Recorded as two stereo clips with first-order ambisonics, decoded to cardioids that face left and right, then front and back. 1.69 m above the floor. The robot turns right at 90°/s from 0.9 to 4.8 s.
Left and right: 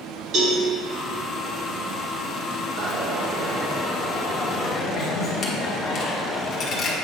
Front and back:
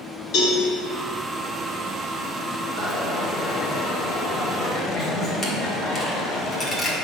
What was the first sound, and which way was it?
A cowbell, 40° right.